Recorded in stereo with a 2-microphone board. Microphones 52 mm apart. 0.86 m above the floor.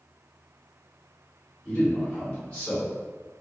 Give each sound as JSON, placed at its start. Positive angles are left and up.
{"t": 1.6, "sound": "a man speaking", "side_deg": 15, "distance_m": 1.6}